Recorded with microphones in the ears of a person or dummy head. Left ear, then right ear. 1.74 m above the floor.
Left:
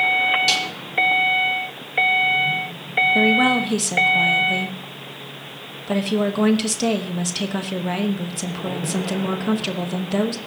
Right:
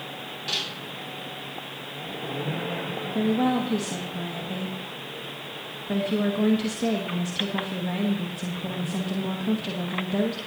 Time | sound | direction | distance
0.5 | a snare drum | 65° left (ahead or behind) | 5 m
3.1 | a woman speaking | 55° left (ahead or behind) | 1.1 m